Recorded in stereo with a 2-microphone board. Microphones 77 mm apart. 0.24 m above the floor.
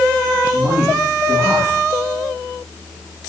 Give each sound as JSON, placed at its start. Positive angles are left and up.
{"t": 0.4, "sound": "a man speaking", "side_deg": -25, "distance_m": 6.5}